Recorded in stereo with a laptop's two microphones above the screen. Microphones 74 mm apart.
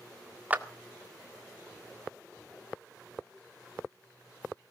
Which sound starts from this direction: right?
A clap, at 0.5 s.